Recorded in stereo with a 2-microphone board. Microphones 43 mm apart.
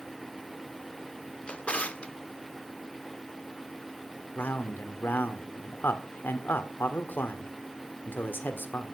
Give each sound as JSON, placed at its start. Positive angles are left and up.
{"t": 1.5, "sound": "a drawer", "side_deg": 25, "distance_m": 1.1}
{"t": 4.3, "sound": "a man speaking", "side_deg": 55, "distance_m": 1.7}